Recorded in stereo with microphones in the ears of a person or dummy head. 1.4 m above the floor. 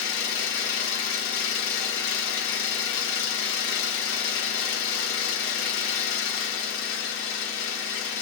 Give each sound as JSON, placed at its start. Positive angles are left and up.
{"t": 0.0, "sound": "an engine running", "side_deg": 70, "distance_m": 0.8}